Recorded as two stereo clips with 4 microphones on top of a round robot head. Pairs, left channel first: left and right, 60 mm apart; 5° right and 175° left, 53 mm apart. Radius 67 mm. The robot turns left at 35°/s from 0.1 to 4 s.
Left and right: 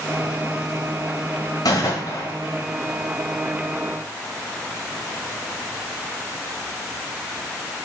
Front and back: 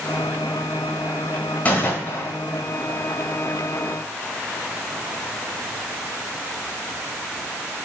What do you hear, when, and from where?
1.6 s a gunshot: 50° left, 1.5 m; by 2.3 s 25° left, 1.5 m